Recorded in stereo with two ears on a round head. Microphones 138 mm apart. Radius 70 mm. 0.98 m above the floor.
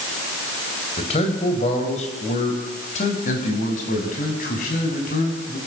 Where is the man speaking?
40° left (ahead or behind), 4 m; by 5.6 s 55° left (ahead or behind), 6.5 m.